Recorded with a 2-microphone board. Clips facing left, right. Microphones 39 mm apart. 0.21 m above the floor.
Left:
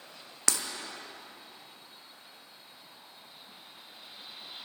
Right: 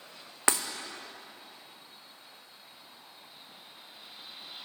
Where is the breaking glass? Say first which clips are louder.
Right 5 dB; 25° right (ahead or behind), 0.7 m.